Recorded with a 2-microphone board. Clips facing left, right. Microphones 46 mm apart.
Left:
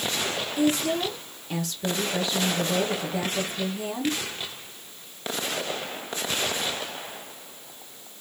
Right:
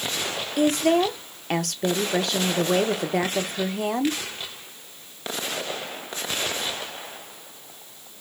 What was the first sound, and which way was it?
A woman speaking, 60° right (ahead or behind).